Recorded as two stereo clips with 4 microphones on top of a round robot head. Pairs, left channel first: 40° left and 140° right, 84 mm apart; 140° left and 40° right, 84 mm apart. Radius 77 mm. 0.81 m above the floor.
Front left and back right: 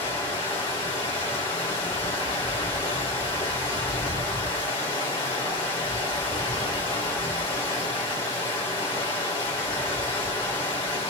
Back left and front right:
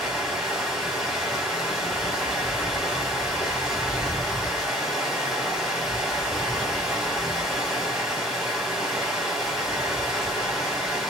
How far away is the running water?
About 1.4 m.